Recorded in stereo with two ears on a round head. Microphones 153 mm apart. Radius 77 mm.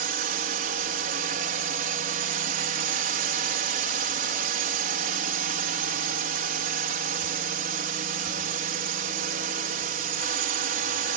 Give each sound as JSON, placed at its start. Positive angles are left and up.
{"t": 0.0, "sound": "a drone", "side_deg": -55}